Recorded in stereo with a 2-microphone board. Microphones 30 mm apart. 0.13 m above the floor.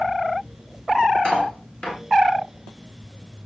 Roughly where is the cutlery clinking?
Left.